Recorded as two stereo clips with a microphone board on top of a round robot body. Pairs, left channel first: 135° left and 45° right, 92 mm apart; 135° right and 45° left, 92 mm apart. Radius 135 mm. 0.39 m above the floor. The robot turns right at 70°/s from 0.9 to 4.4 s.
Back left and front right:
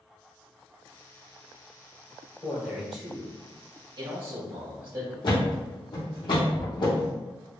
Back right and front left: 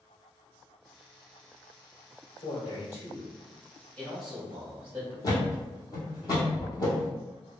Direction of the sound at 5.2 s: 175° left.